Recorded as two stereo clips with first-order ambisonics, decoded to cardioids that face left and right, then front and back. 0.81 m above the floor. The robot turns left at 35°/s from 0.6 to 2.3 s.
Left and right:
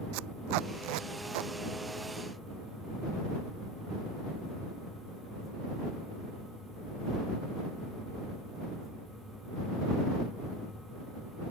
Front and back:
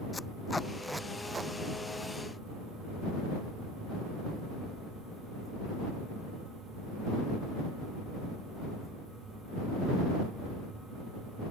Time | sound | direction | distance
0.1 | tape being pulled | 80° right | ?